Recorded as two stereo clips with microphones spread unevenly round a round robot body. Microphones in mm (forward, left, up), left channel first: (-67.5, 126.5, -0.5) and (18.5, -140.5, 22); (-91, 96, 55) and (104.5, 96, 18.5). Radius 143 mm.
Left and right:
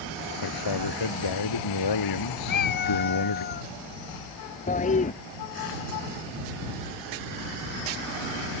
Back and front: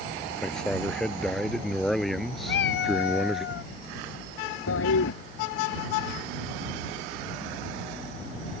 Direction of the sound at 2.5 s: 165° left.